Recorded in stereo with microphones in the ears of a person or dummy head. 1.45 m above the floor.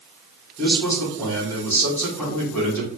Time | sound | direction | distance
0.6 | a man speaking | 5° left (ahead or behind) | 1.3 m